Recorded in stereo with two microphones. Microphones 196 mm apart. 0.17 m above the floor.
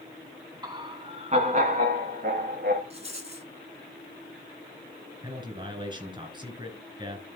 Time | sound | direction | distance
0.6 | laughter | 20° right (ahead or behind) | 1.3 m
2.9 | a rattle | 35° right (ahead or behind) | 2 m
5.2 | a man speaking | 25° right (ahead or behind) | 2.5 m